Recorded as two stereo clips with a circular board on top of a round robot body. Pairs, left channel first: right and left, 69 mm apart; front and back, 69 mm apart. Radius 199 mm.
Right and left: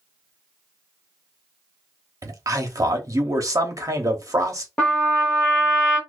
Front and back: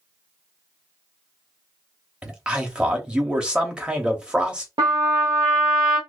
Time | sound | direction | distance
2.2 | a man speaking | 110° left | 1.0 m
4.8 | a trumpet | 165° right | 0.6 m